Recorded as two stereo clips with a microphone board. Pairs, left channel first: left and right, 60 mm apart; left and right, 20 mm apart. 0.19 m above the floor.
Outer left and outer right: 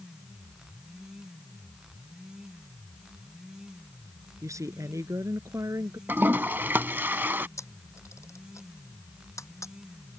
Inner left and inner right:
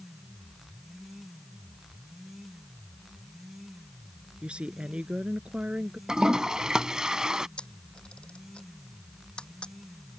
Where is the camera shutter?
55° left (ahead or behind).